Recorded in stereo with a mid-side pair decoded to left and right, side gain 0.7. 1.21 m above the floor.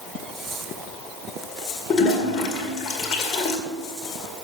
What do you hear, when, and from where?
1.9 s a toilet flushing: 40° left, 2 m